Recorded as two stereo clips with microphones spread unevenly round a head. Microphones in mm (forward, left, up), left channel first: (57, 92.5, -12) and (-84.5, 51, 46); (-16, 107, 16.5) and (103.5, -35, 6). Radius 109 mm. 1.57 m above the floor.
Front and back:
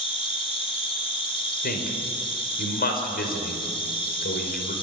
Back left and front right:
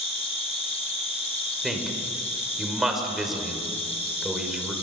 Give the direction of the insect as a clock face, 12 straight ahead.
10 o'clock.